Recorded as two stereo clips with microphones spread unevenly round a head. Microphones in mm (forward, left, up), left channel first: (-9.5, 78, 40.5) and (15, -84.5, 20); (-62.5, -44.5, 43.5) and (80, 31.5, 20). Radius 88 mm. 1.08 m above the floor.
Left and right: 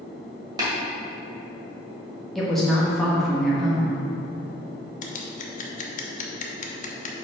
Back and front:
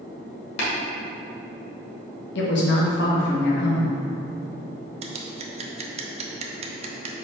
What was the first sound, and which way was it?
Tapping, 150° right.